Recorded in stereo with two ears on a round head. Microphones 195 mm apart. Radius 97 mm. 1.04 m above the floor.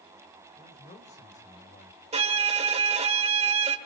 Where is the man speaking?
30° left (ahead or behind), 4.5 m; by 2.0 s 40° left (ahead or behind), 4 m.